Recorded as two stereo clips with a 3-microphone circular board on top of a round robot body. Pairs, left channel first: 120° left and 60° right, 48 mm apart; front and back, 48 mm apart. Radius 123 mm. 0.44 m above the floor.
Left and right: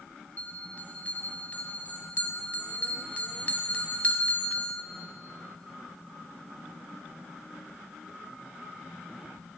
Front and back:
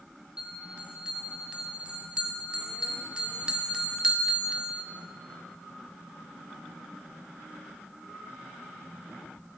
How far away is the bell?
About 0.9 m.